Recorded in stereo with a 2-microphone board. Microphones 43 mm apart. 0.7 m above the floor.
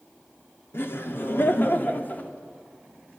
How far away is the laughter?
About 1.7 m.